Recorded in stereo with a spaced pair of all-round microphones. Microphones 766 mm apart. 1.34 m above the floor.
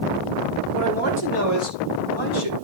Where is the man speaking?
5° left (ahead or behind), 4.5 m; by 2.5 s 40° left (ahead or behind), 4 m.